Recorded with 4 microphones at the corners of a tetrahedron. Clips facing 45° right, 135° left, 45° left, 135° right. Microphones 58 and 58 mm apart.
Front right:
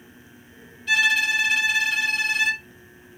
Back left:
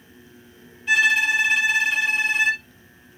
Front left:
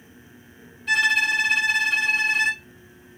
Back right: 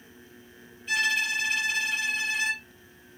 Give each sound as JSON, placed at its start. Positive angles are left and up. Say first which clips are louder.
{"t": 0.9, "sound": "a violin", "louder": "back left 2 dB, front left 6 dB", "azimuth_deg": 65, "distance_m": 1.7}